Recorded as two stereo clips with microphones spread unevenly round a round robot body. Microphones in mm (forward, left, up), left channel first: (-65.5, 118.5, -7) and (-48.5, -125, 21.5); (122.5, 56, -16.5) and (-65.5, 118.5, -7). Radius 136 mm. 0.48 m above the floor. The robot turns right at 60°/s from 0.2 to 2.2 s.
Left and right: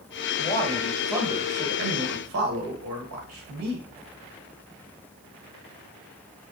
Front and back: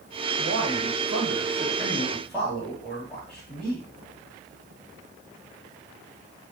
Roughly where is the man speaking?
Behind left.